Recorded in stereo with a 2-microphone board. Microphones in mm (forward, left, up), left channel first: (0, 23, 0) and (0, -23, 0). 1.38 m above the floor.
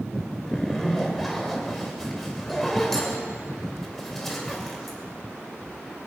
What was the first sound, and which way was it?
A zipper, 5° left (ahead or behind).